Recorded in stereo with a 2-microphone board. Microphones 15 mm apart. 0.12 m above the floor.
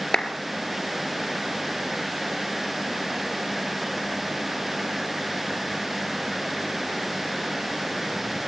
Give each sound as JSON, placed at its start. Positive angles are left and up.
{"t": 0.1, "sound": "a clap", "side_deg": 50, "distance_m": 2.0}